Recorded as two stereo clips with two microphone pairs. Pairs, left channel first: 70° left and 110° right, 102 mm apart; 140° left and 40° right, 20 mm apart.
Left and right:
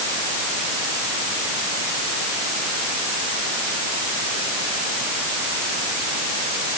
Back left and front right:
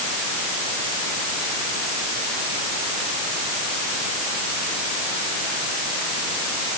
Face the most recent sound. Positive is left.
No sound to turn to.